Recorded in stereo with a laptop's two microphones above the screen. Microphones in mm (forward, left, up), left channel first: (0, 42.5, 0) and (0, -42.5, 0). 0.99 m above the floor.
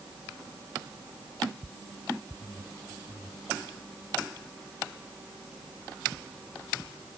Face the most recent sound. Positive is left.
No sound to turn to.